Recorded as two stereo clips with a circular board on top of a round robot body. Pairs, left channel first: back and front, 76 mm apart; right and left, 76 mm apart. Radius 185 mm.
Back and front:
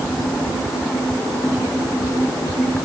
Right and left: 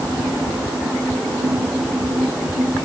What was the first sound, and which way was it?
Only background noise.